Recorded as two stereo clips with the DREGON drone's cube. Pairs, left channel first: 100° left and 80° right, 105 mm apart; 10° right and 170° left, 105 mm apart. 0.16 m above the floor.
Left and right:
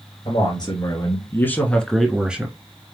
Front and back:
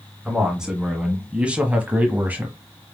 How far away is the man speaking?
About 1.9 m.